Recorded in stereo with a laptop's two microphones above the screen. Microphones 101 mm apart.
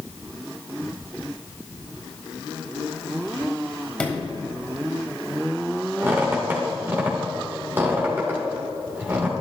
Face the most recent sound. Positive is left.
turn(degrees=-20)  # may be behind; listen again after turning